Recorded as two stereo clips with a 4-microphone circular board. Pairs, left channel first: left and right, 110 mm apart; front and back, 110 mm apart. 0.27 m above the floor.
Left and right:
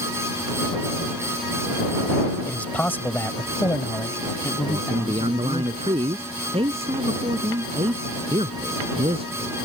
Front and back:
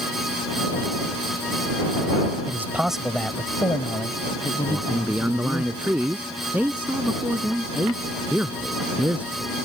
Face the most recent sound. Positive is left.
turn(degrees=-105)